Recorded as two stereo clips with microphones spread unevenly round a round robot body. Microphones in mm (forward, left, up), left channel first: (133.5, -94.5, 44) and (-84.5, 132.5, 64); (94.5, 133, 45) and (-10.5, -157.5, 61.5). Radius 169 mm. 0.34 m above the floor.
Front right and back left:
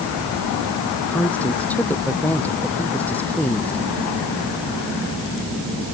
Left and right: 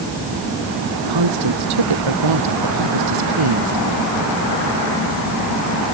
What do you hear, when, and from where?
1.1 s a woman speaking: 130° right